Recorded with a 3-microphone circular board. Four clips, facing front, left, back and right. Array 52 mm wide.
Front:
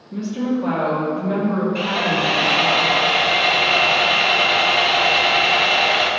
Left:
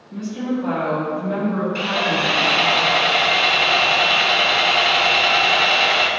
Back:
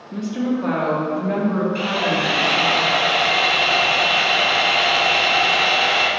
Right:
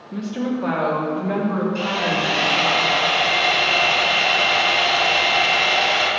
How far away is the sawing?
About 1.7 m.